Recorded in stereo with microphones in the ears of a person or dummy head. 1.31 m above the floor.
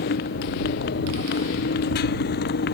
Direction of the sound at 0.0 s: 55° left (ahead or behind).